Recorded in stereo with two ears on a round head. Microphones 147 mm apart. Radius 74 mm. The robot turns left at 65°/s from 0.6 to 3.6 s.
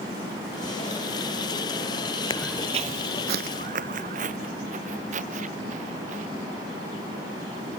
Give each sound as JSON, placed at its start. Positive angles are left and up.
{"t": 2.3, "sound": "footsteps", "side_deg": 30}